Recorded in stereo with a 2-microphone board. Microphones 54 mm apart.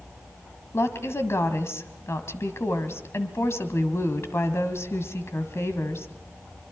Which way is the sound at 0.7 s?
55° left (ahead or behind).